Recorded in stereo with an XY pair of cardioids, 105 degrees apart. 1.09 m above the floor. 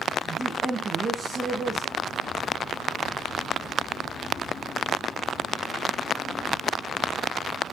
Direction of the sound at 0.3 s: 25° right.